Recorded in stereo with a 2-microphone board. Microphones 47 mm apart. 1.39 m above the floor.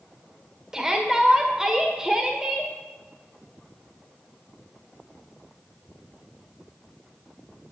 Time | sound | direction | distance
0.7 | a shout | 15° right (ahead or behind) | 1.3 m